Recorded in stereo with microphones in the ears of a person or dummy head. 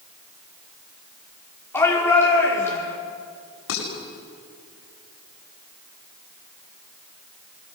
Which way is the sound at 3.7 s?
80° left.